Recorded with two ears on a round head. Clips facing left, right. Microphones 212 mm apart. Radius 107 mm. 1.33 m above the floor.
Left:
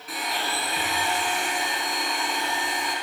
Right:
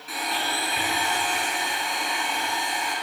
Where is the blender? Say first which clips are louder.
Even; centre (ahead or behind), 4.5 m.